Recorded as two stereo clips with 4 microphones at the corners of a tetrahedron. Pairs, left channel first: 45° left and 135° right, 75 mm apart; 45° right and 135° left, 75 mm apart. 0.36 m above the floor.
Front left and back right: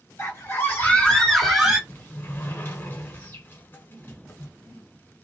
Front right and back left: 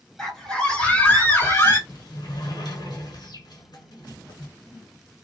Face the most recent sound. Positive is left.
turn(degrees=-15)